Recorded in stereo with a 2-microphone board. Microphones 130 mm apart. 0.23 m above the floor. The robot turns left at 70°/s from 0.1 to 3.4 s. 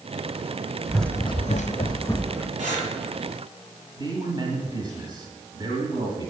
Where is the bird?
No bird in this recording.